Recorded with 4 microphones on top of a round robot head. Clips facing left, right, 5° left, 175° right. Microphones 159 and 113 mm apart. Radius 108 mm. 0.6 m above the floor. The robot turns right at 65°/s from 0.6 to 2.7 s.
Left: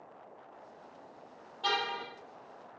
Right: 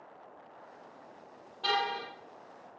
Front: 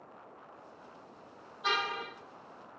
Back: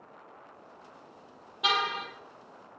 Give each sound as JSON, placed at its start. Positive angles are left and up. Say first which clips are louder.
{"t": 1.6, "sound": "a car horn", "louder": "right 2 dB, back 4 dB", "azimuth_deg": 180, "distance_m": 8.5}